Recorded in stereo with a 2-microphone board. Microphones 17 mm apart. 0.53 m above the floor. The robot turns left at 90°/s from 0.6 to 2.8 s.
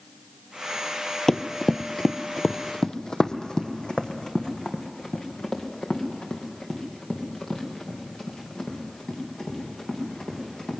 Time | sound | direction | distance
1.3 | running footsteps | 30° left (ahead or behind) | 0.6 m